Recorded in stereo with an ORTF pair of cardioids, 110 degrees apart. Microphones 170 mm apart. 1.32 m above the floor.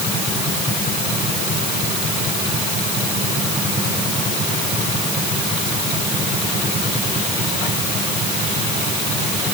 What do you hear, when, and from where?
Only background noise.